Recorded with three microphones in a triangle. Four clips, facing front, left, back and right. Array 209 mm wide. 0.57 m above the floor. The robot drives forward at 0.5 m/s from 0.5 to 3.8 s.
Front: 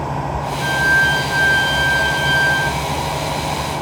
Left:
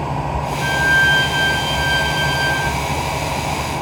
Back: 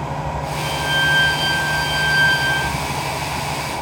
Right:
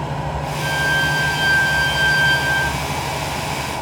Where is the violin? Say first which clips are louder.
Left 4 dB, front 5 dB; 140° left, 0.9 m; by 2.7 s 165° left, 1.8 m.